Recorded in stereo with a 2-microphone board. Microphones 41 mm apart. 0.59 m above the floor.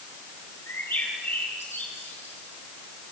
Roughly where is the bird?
Left.